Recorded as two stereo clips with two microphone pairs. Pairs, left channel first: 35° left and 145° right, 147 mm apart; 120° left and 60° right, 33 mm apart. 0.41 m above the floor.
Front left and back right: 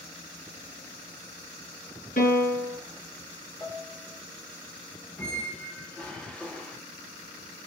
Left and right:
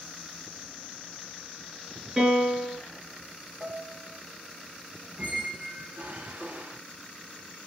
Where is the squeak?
45° right, 0.9 m.